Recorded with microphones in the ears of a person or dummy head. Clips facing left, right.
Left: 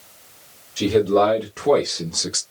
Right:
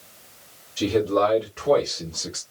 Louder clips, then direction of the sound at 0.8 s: Left 4 dB; 50° left (ahead or behind).